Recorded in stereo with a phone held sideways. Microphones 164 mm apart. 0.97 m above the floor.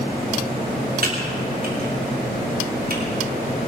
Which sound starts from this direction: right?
Typing on a keyboard, at 1.0 s.